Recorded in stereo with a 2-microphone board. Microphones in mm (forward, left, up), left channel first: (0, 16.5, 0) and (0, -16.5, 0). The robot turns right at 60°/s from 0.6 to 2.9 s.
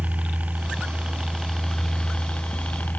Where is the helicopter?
65° right; by 3.0 s 75° left.